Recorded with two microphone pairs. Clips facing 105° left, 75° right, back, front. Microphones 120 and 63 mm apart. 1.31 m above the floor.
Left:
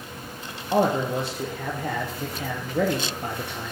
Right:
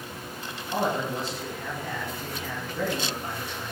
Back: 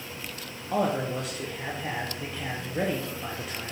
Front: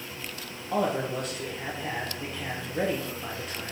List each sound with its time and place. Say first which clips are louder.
0.7 s a man speaking: left 6 dB, even; 95° left, 0.8 m